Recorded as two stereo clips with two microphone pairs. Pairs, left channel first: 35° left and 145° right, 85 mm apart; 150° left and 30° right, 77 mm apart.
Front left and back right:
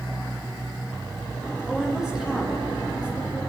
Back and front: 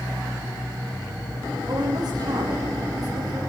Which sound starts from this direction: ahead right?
A woman speaking, at 1.7 s.